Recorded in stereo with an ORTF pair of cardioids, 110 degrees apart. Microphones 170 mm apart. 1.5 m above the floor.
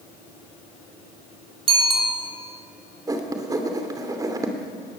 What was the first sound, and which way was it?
A bicycle bell, 30° right.